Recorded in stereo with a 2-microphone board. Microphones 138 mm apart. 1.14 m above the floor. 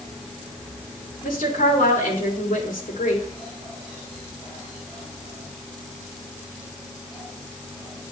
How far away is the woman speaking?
About 2.5 m.